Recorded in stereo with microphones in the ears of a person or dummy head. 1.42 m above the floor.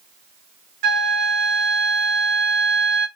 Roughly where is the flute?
Right.